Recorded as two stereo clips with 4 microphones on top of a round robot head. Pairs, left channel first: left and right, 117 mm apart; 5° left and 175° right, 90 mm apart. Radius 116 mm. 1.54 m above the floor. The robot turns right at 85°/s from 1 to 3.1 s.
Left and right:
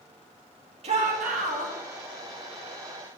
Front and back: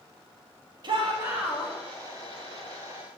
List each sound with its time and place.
0.8 s a shout: 130° right, 2.5 m; by 1.7 s 65° right, 2.5 m